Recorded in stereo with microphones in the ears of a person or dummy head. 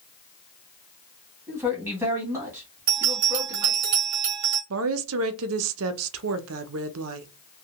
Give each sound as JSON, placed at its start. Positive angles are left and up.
{"t": 1.5, "sound": "a man speaking", "side_deg": -10, "distance_m": 1.5}
{"t": 2.9, "sound": "a bell", "side_deg": -25, "distance_m": 0.9}
{"t": 4.7, "sound": "a woman speaking", "side_deg": -85, "distance_m": 0.5}